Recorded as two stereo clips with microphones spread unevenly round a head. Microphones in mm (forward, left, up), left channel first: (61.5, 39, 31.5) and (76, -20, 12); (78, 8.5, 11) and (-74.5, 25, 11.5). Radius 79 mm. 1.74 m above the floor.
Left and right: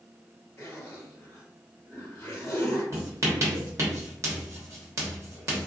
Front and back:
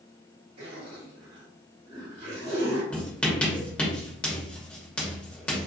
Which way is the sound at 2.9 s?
80° right.